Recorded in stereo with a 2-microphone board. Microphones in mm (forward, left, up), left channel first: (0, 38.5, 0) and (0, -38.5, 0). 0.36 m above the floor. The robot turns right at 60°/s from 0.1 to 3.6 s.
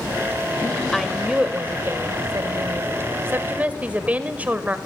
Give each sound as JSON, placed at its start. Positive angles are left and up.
{"t": 0.9, "sound": "a woman speaking", "azimuth_deg": 170, "distance_m": 1.2}